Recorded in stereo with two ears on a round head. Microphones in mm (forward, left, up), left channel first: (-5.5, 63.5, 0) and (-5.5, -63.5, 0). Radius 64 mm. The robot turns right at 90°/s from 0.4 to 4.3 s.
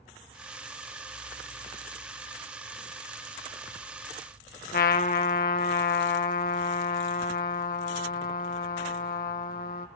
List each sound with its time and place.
4.7 s a trumpet: 70° left (ahead or behind), 1.1 m